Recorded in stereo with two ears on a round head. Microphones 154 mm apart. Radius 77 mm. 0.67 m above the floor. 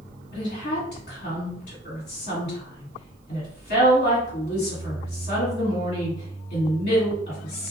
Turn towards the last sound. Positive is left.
turn(degrees=60)  # may be behind; listen again after turning